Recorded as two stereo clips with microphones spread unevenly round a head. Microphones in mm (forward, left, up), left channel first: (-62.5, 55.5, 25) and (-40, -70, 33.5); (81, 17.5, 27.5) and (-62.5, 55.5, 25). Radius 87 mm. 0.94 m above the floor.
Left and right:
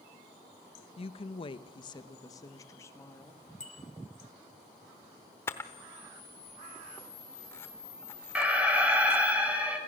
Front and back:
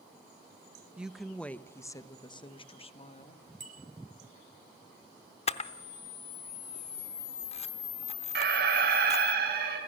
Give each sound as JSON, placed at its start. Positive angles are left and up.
{"t": 1.0, "sound": "a woman speaking", "azimuth_deg": 85, "distance_m": 0.9}
{"t": 3.6, "sound": "a bicycle bell", "azimuth_deg": 130, "distance_m": 3.0}
{"t": 5.5, "sound": "a camera shutter", "azimuth_deg": 25, "distance_m": 0.8}
{"t": 8.3, "sound": "an alarm", "azimuth_deg": -160, "distance_m": 5.0}